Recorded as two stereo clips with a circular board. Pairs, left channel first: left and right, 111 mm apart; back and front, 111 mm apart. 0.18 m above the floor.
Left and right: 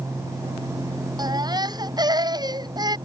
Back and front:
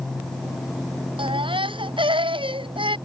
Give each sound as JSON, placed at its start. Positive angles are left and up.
{"t": 1.2, "sound": "a baby crying", "azimuth_deg": -40}